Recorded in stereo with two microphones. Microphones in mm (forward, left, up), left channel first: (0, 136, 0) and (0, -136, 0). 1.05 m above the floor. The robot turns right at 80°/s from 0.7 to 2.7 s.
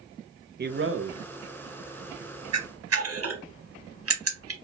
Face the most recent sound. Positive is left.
turn(degrees=-55)  # may be behind; listen again after turning